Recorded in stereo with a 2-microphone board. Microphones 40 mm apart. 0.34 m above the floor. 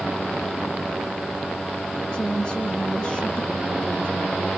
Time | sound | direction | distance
2.1 | a woman speaking | 20° left (ahead or behind) | 2.5 m